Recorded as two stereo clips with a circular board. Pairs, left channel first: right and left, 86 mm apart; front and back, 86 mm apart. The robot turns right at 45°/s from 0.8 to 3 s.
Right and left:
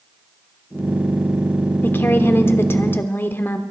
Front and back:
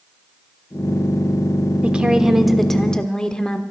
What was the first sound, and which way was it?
A woman speaking, 120° right.